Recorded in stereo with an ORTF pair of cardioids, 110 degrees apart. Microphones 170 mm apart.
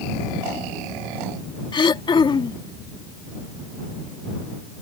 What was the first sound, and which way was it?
Throat clearing, 30° left.